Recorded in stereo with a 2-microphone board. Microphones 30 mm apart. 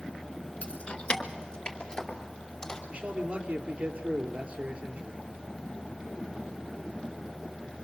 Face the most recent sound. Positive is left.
turn(degrees=-30)  # may be behind; listen again after turning